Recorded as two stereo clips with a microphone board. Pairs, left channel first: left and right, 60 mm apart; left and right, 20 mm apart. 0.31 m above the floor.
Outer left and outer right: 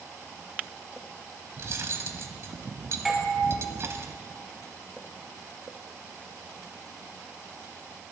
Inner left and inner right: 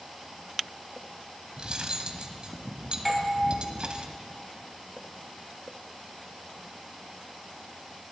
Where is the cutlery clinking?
50° right (ahead or behind), 1.0 m.